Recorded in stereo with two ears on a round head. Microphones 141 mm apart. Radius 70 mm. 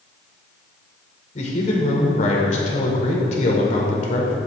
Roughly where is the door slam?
No door slam in this recording.